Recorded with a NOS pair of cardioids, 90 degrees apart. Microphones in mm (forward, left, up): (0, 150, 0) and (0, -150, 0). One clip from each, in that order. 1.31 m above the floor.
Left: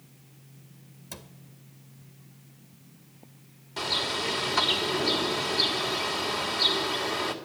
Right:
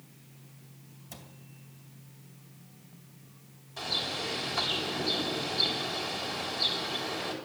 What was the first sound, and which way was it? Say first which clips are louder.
A cupboard door: left 5 dB; 45° left.